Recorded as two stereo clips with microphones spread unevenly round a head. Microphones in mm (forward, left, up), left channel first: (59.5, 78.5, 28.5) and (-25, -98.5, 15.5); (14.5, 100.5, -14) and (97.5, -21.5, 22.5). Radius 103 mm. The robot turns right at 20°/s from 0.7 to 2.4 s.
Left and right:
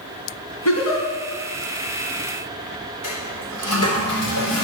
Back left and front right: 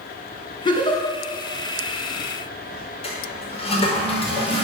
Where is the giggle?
60° left, 5 m; by 1.1 s 70° left, 5 m.